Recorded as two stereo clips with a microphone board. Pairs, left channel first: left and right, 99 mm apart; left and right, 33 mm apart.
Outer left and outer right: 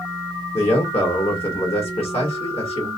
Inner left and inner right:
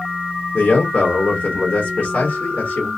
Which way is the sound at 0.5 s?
75° left (ahead or behind).